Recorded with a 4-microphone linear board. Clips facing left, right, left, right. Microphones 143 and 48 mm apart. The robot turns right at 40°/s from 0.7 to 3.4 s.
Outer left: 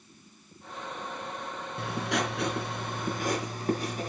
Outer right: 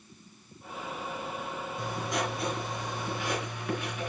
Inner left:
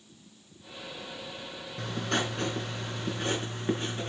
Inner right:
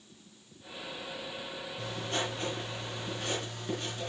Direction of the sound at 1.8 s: 75° left.